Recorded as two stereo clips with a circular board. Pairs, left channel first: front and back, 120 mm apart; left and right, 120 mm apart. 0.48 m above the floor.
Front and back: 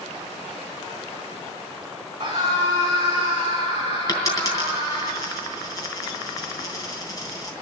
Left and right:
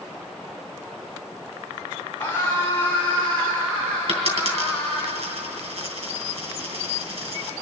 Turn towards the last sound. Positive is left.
turn(degrees=-60)